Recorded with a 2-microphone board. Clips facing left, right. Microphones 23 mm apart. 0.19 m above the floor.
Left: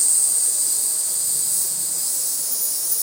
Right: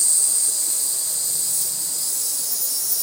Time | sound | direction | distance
0.0 | an insect | 60° right (ahead or behind) | 2 m